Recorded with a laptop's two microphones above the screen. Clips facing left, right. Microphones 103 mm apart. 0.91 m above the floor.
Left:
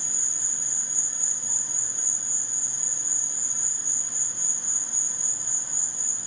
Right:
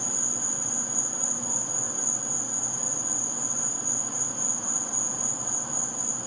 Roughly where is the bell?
No bell in this recording.